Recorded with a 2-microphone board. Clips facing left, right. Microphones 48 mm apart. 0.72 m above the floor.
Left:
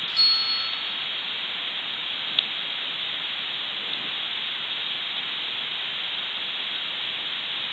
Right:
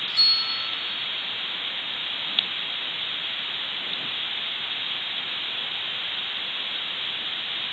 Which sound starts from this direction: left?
A bell, at 0.2 s.